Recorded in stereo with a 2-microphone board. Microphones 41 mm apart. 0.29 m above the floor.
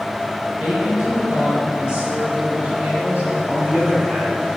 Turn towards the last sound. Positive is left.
turn(degrees=-70)  # may be behind; listen again after turning